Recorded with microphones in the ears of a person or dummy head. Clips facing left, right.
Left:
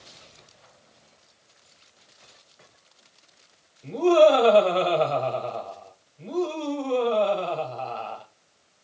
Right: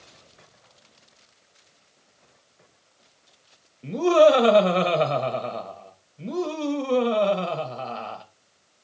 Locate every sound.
3.8 s laughter: 30° right (ahead or behind), 0.7 m